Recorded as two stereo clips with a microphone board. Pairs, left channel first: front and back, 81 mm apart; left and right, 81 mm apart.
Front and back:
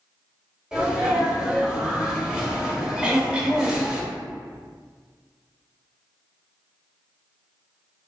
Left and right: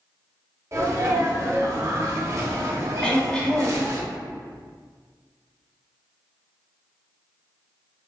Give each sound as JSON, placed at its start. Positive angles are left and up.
{"t": 0.7, "sound": "a sneeze", "azimuth_deg": -105, "distance_m": 1.1}
{"t": 3.0, "sound": "throat clearing", "azimuth_deg": 140, "distance_m": 0.5}